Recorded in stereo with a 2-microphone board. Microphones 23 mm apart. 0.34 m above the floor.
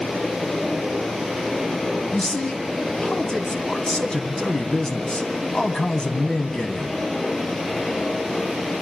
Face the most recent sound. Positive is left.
turn(degrees=40)  # may be behind; listen again after turning